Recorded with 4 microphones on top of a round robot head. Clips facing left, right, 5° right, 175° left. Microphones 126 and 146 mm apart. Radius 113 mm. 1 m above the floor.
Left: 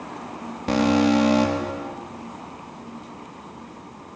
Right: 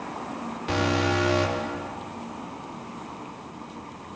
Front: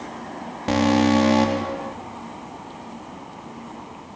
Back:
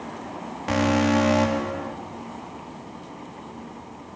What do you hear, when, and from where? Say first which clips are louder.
0.7 s an alarm: left 7 dB, front 3 dB; 45° left, 3.5 m